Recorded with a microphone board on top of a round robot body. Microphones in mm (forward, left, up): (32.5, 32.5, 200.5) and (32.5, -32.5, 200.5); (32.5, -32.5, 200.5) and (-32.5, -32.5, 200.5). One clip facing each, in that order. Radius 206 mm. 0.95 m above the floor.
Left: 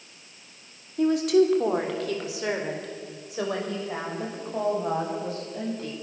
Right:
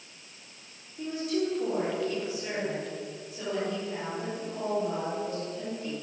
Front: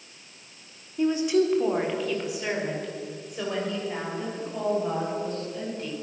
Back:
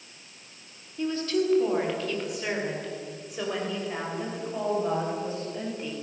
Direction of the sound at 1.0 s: 70° left.